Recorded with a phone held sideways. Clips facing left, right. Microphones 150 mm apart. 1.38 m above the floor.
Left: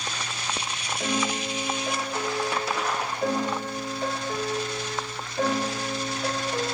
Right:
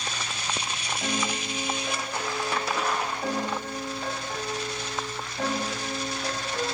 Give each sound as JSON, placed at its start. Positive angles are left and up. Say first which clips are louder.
{"t": 1.0, "sound": "a piano", "louder": "left 4 dB", "side_deg": 65, "distance_m": 6.5}